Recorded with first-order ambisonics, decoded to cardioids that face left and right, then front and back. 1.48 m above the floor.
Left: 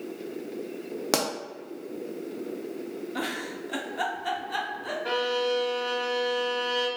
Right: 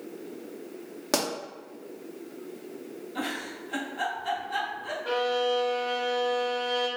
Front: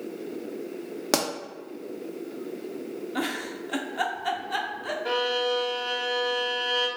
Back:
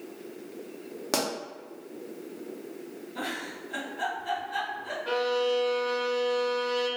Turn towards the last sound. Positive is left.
turn(degrees=40)